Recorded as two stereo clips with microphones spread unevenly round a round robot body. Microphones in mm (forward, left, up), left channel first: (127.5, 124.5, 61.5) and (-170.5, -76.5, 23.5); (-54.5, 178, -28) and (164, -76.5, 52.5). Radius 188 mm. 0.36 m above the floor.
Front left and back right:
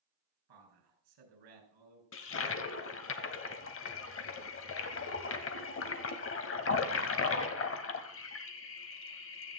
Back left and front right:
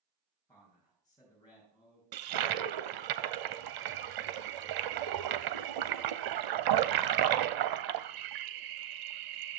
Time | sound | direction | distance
0.5 | a man speaking | 155° right | 5.5 m
2.1 | a toilet flushing | 25° right | 1.0 m